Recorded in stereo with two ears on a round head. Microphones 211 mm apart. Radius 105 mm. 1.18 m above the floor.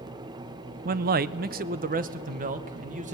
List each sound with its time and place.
0.8 s a man speaking: 35° right (ahead or behind), 0.6 m